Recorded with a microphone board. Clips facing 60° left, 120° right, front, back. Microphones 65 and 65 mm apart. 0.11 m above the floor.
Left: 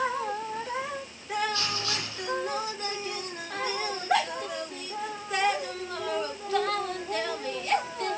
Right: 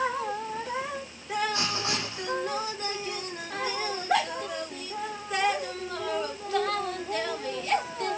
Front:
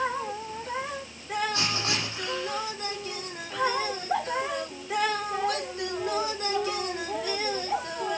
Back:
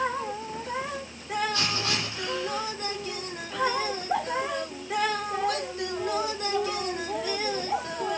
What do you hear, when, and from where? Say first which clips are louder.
1.5 s writing: right 2 dB, even; 60° right, 4 m